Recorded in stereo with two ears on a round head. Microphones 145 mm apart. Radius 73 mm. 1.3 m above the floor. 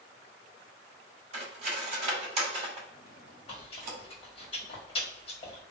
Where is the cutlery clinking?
40° right (ahead or behind), 2 m.